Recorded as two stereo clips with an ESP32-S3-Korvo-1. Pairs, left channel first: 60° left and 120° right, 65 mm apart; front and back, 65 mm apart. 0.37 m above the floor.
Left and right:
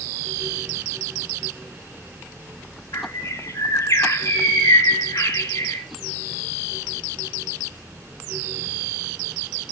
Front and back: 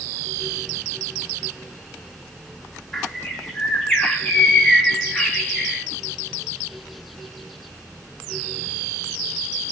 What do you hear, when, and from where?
2.9 s a bird: 85° left, 2 m